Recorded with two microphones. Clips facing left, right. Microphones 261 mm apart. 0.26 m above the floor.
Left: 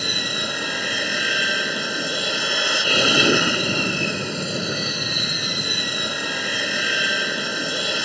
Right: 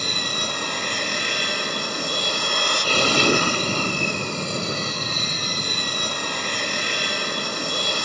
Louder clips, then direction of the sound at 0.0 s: Left 1 dB; 5° left (ahead or behind).